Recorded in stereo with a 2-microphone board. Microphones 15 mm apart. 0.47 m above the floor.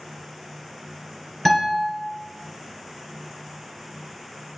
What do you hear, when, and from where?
1.4 s a guitar: 15° left (ahead or behind), 2 m